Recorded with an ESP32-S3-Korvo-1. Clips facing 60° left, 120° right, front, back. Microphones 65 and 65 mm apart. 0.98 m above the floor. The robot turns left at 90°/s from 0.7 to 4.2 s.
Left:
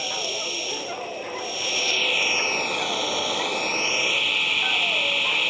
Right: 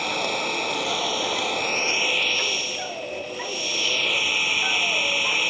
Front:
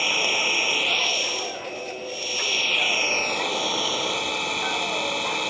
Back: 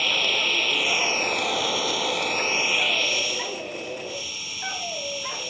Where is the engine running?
80° right; by 5.5 s 35° right.